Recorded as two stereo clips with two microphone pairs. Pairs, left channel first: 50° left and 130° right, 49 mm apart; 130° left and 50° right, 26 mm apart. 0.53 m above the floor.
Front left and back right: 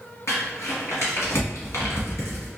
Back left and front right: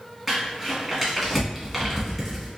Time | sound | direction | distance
0.3 | crumpling | 35° left | 1.4 m